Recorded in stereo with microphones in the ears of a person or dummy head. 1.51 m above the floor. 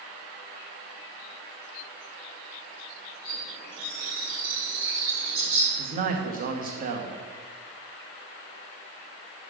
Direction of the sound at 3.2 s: 60° right (ahead or behind).